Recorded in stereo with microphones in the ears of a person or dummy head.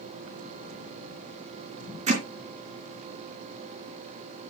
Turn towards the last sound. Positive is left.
turn(degrees=-40)  # may be behind; listen again after turning